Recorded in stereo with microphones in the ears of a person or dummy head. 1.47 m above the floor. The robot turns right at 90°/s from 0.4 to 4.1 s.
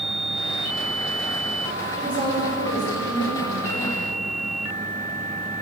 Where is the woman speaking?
Straight ahead, 5.5 m; by 4.1 s 170° right, 5.5 m.